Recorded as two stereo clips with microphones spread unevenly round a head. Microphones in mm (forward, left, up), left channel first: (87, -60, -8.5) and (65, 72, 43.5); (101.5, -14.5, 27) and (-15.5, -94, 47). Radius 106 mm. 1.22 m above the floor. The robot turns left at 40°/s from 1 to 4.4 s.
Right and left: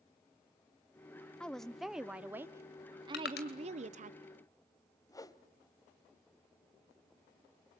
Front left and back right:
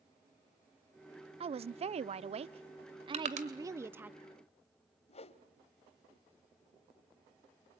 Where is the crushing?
110° right, 2.5 m; by 3.5 s 120° right, 2.5 m.